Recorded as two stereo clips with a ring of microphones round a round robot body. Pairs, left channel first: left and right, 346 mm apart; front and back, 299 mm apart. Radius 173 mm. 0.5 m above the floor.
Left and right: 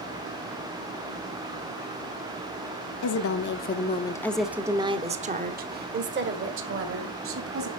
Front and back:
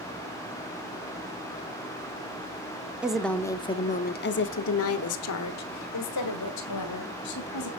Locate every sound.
3.0 s a woman speaking: 95° left, 1.0 m; by 7.7 s 40° right, 2.5 m